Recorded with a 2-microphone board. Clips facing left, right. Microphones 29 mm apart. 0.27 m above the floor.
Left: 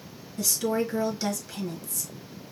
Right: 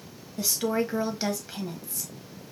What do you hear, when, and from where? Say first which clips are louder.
0.4 s a woman speaking: even; 30° right (ahead or behind), 1.2 m